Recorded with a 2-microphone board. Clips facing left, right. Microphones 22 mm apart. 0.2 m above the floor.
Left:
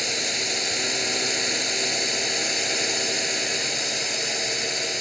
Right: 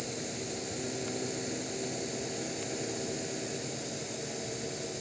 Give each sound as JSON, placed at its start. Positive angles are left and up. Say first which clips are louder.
{"t": 0.0, "sound": "a drone", "louder": "left 13 dB", "side_deg": 65}